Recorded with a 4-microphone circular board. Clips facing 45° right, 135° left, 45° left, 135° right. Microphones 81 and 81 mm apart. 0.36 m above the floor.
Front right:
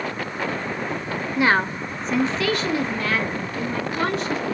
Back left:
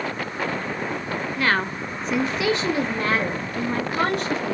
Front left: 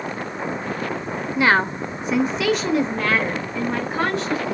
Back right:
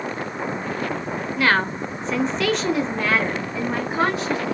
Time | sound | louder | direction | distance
1.4 | a woman speaking | front right 4 dB, front left 2 dB | straight ahead | 0.9 m